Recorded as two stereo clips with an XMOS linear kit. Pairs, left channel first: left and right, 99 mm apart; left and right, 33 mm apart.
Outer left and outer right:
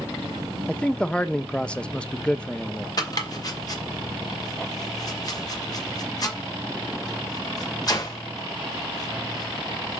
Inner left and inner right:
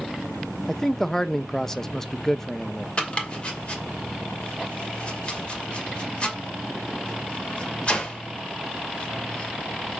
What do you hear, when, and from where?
0.7 s a man speaking: 10° left (ahead or behind), 0.7 m
3.0 s chopping: 40° left (ahead or behind), 2 m